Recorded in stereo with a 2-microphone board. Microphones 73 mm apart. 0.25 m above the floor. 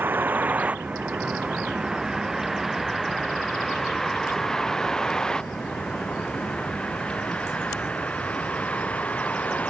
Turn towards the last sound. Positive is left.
turn(degrees=20)  # may be behind; listen again after turning